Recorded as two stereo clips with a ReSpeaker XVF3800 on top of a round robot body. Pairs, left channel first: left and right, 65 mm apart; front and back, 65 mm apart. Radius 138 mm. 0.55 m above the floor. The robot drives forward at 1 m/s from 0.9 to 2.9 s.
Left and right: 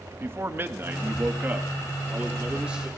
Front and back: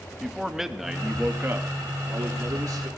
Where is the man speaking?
100° right, 1.1 m; by 2.9 s 165° right, 2.5 m.